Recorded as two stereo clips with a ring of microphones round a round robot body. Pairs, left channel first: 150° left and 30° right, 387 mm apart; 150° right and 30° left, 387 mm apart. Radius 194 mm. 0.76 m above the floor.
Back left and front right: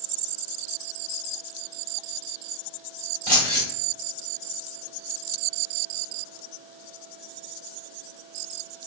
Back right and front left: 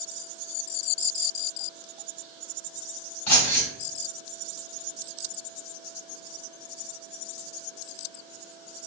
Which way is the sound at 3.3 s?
100° right.